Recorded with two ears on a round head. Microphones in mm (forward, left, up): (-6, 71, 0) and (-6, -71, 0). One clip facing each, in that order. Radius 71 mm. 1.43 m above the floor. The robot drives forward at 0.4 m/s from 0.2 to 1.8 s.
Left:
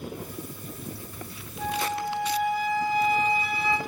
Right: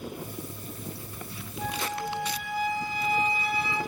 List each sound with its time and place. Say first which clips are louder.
1.6 s a flute: left 4 dB; 75° left (ahead or behind), 2.5 m